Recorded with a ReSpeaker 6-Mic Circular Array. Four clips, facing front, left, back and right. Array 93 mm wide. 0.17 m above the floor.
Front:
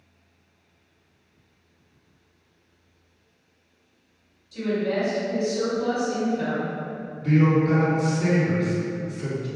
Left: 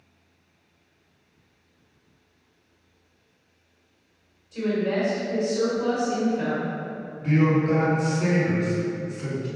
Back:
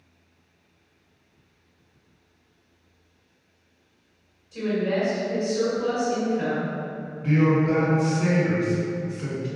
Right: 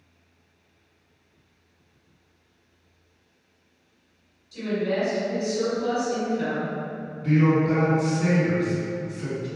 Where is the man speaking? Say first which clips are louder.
Right 1 dB, front 1 dB; 150° left, 1.5 m.